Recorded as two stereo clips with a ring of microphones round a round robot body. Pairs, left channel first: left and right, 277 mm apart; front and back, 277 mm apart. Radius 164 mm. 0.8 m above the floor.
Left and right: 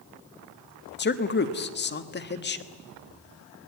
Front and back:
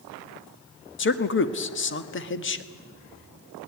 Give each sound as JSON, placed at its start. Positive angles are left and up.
{"t": 1.0, "sound": "a man speaking", "azimuth_deg": 40, "distance_m": 1.5}